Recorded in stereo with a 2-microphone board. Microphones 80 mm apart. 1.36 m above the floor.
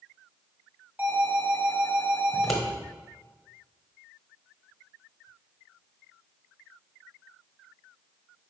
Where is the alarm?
25° right (ahead or behind), 2.5 m.